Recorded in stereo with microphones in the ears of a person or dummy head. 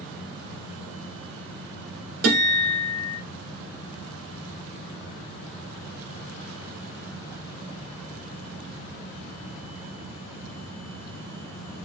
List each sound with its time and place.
2.2 s a guitar: 55° right (ahead or behind), 2.5 m